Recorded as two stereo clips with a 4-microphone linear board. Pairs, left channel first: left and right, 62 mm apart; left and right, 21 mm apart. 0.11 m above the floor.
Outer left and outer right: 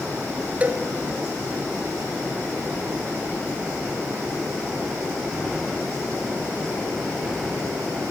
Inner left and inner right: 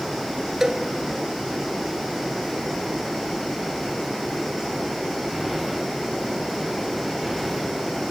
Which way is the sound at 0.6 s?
25° right (ahead or behind).